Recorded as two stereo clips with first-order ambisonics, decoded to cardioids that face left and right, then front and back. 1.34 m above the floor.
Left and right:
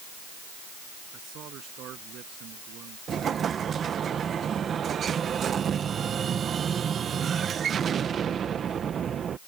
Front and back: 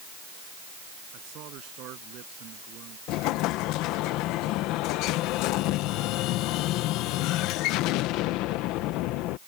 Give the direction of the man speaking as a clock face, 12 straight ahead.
5 o'clock.